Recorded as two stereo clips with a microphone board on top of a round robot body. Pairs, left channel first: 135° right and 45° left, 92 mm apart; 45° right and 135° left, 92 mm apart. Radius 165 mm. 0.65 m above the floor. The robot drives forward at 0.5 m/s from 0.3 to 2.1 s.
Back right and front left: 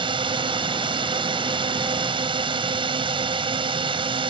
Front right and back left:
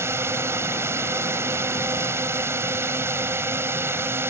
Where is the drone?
70° left.